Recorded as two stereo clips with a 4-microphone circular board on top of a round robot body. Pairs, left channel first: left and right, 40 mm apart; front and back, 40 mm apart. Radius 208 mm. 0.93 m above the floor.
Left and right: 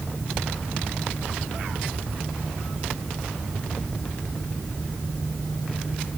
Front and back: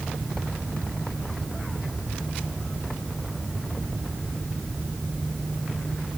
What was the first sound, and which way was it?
Only background noise.